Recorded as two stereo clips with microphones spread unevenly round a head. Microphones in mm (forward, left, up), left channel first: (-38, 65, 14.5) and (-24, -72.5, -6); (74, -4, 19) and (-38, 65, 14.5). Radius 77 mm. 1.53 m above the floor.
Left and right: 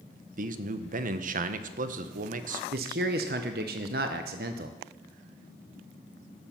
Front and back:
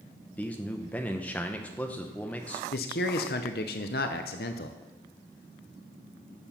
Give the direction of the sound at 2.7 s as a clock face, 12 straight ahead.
2 o'clock.